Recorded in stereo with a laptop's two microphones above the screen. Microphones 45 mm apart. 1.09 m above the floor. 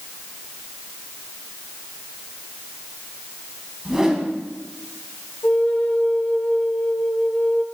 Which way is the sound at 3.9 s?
15° right (ahead or behind).